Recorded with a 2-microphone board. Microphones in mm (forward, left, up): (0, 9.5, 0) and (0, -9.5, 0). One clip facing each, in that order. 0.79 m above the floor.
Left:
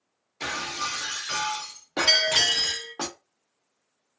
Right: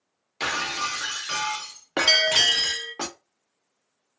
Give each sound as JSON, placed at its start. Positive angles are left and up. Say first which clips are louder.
{"t": 0.4, "sound": "breaking glass", "louder": "right 4 dB", "side_deg": -45, "distance_m": 0.5}
{"t": 2.1, "sound": "a bell", "louder": "right 2 dB", "side_deg": -30, "distance_m": 0.6}